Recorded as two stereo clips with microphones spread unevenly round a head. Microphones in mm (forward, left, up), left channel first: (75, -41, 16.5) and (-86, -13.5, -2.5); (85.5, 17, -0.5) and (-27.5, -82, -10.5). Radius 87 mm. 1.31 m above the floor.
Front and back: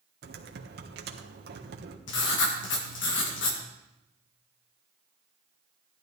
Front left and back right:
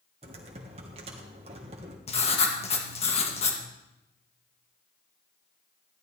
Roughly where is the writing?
Ahead.